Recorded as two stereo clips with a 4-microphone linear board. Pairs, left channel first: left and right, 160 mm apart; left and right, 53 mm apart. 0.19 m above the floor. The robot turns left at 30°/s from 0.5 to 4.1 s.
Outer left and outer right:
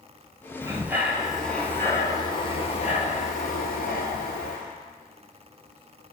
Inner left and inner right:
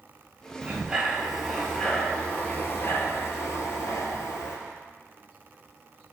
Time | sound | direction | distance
0.6 | breathing | 160° right | 0.7 m